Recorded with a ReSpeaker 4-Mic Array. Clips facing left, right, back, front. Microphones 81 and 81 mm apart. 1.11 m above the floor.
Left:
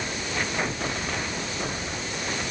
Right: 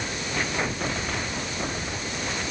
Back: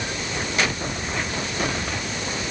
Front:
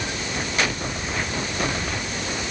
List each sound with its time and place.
Only background noise.